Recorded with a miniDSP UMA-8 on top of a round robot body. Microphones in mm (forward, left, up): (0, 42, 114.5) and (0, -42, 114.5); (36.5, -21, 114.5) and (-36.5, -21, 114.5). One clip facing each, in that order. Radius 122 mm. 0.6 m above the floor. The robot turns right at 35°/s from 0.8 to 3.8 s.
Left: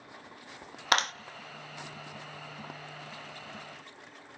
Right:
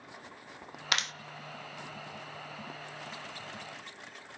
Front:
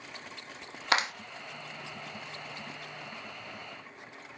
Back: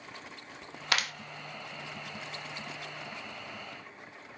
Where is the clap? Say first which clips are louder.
Left 7 dB, front 4 dB; 55° left, 0.8 m; by 1.1 s 60° left, 0.8 m.